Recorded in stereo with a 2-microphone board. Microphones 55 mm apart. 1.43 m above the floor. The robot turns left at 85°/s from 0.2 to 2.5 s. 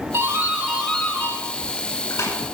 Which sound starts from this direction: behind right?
A doorbell, at 0.1 s.